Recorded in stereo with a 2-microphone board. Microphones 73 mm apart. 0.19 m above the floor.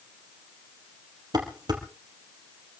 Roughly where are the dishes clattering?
Right.